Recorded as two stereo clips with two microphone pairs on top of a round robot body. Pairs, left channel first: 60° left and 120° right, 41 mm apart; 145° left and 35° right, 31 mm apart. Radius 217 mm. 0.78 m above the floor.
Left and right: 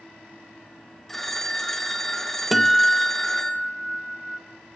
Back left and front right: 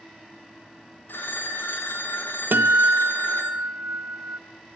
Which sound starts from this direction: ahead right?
A guitar, at 2.5 s.